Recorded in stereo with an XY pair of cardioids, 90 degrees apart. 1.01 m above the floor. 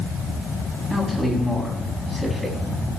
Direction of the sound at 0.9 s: Straight ahead.